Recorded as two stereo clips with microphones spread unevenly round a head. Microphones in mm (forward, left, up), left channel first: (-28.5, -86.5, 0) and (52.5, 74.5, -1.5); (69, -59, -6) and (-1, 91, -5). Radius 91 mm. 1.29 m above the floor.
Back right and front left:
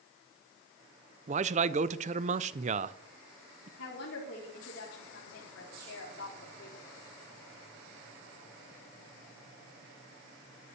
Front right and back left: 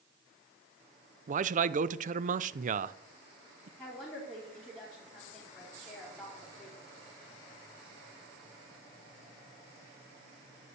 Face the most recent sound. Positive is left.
turn(degrees=-150)